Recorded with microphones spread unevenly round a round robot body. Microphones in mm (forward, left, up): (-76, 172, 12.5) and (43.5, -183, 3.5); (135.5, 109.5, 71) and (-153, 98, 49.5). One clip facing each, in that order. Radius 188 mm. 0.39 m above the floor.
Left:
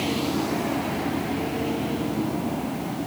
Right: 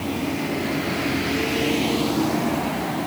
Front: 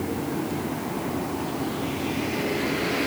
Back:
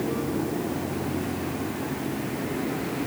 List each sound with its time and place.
Only background noise.